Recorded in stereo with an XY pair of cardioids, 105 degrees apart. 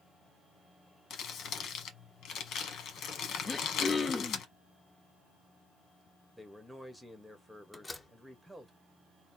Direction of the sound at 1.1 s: 65° left.